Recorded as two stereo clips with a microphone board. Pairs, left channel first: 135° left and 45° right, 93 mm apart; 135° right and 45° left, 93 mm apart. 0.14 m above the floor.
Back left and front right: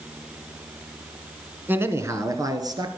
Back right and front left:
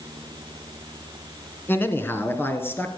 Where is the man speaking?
90° right, 1.2 m; by 2.9 s 75° right, 1.8 m.